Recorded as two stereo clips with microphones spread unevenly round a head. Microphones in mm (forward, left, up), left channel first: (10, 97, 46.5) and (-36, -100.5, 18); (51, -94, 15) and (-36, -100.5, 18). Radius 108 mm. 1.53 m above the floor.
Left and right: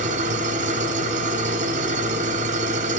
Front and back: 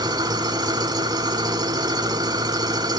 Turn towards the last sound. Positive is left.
turn(degrees=-160)